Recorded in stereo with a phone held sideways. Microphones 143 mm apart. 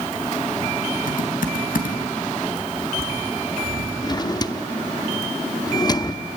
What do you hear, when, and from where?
1.1 s typing on a keyboard: 75° left (ahead or behind), 3 m
4.0 s a drawer: 30° left (ahead or behind), 0.8 m